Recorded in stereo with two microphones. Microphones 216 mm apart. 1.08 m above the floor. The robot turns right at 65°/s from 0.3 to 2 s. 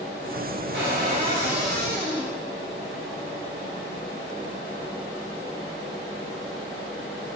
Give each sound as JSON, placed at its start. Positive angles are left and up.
{"t": 0.7, "sound": "a cupboard door", "azimuth_deg": -60, "distance_m": 1.1}